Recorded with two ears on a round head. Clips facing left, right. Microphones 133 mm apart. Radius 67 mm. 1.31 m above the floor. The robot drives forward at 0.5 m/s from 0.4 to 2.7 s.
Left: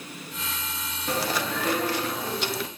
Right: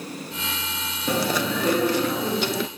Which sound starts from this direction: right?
Chewing, at 1.1 s.